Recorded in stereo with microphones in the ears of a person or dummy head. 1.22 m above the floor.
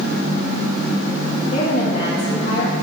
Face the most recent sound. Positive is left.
turn(degrees=45)  # may be behind; listen again after turning